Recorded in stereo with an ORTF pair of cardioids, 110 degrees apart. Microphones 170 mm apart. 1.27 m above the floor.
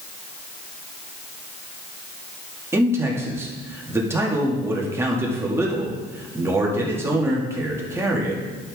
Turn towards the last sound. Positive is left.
turn(degrees=-15)